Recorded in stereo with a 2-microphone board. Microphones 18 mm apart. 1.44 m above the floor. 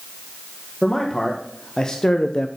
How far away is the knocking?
No knocking in this recording.